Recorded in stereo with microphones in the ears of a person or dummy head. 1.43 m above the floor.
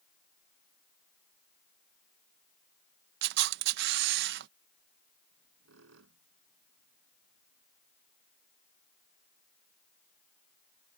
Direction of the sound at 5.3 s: 80° right.